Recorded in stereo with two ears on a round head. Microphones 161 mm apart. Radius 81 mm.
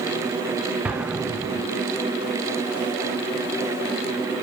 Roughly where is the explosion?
Centre.